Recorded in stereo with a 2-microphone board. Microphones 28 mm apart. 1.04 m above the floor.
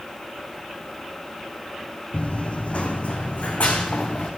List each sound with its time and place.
2.1 s running footsteps: 45° left (ahead or behind), 1.9 m; by 4.3 s 55° left (ahead or behind), 4 m